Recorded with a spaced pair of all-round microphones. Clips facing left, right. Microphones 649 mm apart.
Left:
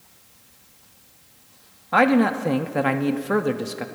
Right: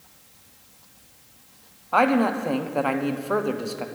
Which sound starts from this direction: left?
A man speaking, at 1.9 s.